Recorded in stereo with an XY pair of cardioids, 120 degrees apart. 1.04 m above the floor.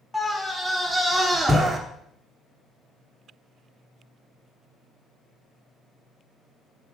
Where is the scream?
5° left, 4 m; by 1.8 s 20° right, 3 m.